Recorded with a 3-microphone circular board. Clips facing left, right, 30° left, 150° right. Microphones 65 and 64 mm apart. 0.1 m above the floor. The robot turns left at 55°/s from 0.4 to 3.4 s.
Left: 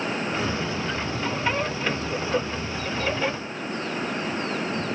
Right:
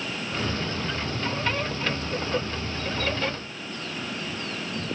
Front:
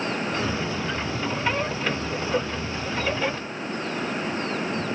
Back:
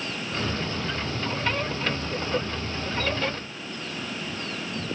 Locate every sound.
Only background noise.